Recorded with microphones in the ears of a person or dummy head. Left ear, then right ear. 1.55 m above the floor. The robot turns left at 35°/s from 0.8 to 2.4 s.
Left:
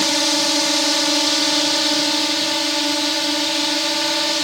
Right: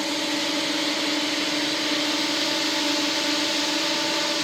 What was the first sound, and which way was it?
A drone, 75° left.